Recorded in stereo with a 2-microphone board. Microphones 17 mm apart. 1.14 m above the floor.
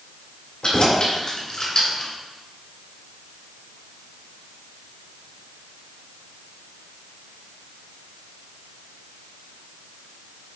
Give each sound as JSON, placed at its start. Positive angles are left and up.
{"t": 0.6, "sound": "keys jangling", "side_deg": 50, "distance_m": 2.5}